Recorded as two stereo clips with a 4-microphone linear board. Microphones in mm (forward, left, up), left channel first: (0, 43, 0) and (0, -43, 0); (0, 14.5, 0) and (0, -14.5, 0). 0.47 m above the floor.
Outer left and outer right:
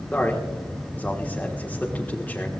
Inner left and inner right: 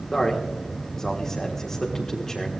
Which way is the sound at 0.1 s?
20° left (ahead or behind).